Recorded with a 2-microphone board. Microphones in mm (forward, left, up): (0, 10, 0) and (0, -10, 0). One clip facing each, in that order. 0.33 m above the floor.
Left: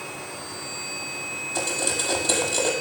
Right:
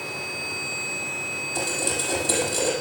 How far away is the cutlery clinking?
About 5.5 m.